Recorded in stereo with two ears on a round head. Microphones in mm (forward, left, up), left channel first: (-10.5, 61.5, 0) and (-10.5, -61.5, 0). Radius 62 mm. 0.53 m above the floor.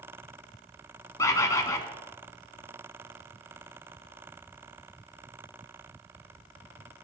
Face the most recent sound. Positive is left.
turn(degrees=25)  # may be behind; listen again after turning